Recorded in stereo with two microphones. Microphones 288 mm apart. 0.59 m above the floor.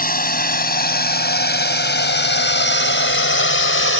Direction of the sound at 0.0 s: 35° left (ahead or behind).